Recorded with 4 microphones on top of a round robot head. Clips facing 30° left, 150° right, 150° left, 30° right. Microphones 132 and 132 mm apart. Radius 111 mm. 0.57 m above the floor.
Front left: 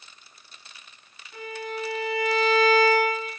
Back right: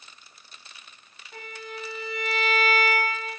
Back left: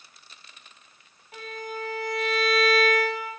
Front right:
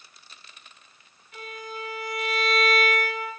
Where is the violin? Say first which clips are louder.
Front left 6 dB, back left 3 dB; 165° right, 2.5 m.